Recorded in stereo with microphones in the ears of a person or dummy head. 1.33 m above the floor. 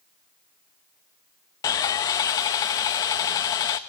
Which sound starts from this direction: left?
Sawing, at 1.6 s.